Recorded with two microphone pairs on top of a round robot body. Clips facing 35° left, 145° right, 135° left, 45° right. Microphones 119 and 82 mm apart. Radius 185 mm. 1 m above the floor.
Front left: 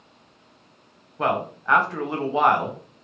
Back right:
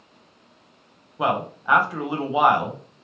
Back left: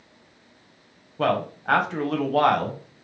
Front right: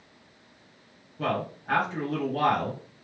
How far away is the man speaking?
About 0.9 m.